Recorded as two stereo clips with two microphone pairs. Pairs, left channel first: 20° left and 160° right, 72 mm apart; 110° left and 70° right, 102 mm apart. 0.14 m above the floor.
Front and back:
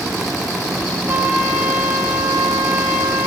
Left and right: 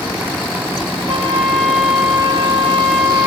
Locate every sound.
1.1 s a trumpet: 90° right, 3 m